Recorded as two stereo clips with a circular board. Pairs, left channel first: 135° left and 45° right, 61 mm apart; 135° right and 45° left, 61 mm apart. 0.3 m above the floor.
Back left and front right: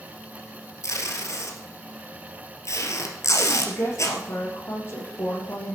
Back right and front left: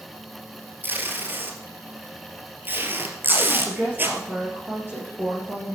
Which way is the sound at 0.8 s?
100° left.